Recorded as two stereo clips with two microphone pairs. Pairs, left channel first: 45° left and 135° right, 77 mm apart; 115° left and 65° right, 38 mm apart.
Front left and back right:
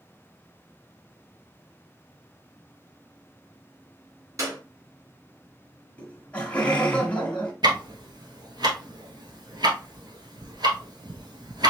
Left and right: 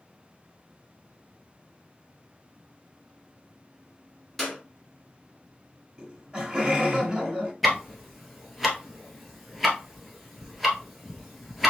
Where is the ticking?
150° right, 1.2 m.